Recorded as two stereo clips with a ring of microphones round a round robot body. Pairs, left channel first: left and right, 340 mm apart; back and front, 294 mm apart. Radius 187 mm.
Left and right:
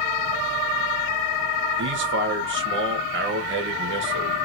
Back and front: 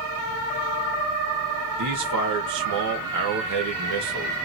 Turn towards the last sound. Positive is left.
turn(degrees=-35)